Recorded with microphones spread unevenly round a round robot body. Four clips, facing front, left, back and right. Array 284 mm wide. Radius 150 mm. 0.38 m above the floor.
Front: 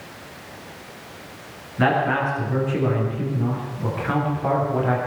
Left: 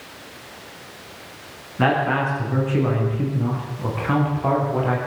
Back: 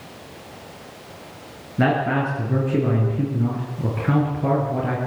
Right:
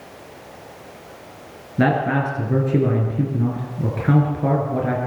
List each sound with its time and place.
1.8 s a man speaking: 115° right, 6 m